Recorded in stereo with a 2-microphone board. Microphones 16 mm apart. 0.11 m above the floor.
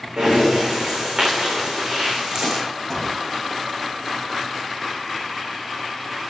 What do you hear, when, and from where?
0.2 s breathing: 30° right (ahead or behind), 9.5 m
2.9 s a gunshot: 20° left (ahead or behind), 6.5 m